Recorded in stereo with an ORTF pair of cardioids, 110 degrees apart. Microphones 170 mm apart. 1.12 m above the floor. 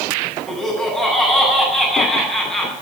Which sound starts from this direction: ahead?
Laughter, at 0.5 s.